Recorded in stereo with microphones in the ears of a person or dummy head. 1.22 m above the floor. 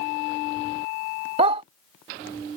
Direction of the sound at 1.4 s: 35° right (ahead or behind).